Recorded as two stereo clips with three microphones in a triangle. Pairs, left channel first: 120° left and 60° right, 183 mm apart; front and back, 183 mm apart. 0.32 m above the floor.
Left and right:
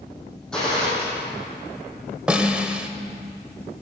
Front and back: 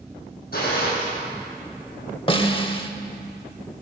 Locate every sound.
0.5 s a gunshot: 35° left, 4 m
2.3 s a snare drum: 15° left, 0.7 m